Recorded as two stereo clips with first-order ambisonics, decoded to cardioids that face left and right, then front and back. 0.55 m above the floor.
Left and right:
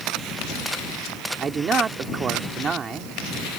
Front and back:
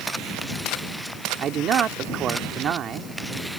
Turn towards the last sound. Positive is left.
turn(degrees=-145)